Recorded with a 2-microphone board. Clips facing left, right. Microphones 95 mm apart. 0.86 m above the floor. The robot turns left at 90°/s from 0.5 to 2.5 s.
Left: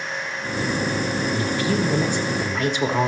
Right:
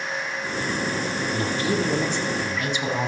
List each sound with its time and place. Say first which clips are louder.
1.3 s a man speaking: even; 125° right, 1.9 m; by 3.1 s 130° left, 1.9 m